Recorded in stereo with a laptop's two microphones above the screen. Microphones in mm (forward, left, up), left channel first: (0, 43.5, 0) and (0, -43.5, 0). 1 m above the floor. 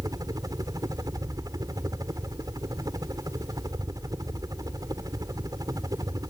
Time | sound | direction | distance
0.0 | a helicopter | 50° right (ahead or behind) | ?